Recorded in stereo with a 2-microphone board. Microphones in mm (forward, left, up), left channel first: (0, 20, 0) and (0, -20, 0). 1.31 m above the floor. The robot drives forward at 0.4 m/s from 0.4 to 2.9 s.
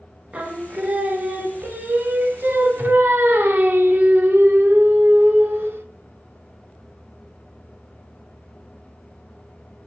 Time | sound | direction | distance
0.3 | singing | 35° right (ahead or behind) | 1.7 m